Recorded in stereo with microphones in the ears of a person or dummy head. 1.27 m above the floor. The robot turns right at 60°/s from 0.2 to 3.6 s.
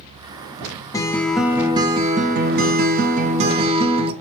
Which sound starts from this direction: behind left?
A guitar, at 0.9 s.